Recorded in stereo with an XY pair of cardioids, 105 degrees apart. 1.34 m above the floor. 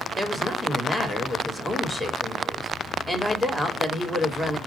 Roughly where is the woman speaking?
Ahead.